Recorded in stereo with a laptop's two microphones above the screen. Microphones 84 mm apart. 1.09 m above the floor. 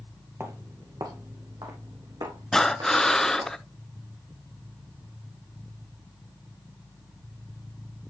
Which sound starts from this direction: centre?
Breathing, at 2.5 s.